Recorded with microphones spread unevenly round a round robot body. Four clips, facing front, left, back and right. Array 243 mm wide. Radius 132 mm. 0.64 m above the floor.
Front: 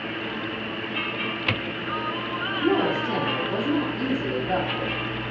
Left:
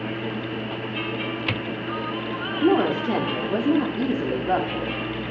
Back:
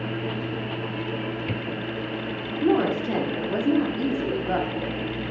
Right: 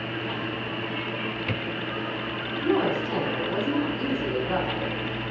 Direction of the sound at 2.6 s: 95° left.